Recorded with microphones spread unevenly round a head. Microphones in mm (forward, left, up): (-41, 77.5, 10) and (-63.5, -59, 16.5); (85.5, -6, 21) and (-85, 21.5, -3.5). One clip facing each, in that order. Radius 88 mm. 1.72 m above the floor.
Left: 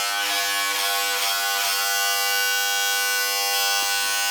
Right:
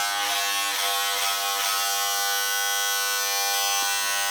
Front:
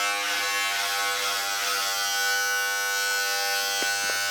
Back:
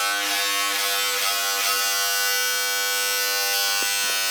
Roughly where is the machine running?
Behind.